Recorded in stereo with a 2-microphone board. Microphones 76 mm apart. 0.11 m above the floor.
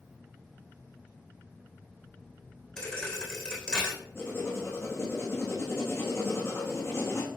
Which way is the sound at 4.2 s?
35° left (ahead or behind).